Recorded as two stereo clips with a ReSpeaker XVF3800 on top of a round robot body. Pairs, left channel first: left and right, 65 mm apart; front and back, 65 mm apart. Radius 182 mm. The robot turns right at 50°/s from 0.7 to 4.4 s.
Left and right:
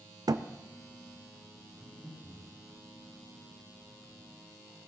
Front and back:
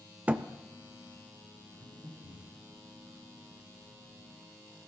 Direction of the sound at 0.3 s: 110° right.